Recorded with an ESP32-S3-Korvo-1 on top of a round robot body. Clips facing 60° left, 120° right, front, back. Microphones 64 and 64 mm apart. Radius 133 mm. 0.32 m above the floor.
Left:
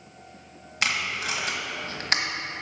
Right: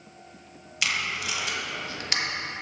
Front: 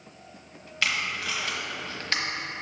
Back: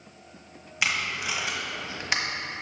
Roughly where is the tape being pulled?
Left.